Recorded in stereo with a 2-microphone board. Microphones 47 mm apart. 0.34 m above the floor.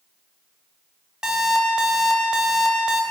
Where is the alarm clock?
15° right (ahead or behind), 0.7 m.